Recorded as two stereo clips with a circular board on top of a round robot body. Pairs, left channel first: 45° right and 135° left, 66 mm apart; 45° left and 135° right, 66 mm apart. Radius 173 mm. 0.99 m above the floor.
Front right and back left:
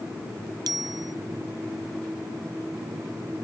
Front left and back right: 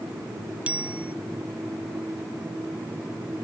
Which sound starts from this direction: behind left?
A bicycle bell, at 0.7 s.